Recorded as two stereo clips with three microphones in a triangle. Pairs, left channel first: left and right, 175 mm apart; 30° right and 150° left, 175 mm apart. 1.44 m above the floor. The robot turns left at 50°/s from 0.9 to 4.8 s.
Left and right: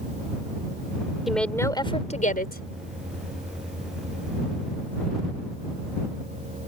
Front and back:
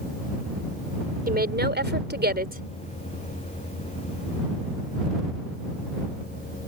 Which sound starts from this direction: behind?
A woman speaking, at 1.3 s.